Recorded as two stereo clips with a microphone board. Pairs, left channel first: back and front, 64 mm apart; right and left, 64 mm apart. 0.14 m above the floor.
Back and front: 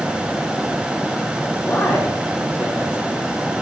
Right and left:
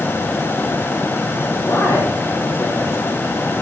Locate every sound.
1.6 s a man speaking: 125° right, 6 m